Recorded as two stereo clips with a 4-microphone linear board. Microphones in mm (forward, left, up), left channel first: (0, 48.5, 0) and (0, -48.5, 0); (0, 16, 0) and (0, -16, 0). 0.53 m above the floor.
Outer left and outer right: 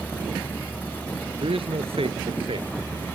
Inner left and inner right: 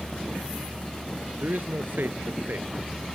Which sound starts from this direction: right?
A man speaking, at 1.4 s.